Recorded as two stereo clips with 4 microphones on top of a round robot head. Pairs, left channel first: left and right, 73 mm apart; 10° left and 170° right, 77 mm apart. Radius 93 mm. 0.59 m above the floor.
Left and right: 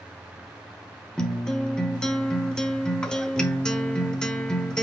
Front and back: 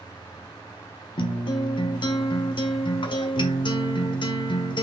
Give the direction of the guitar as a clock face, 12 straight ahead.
12 o'clock.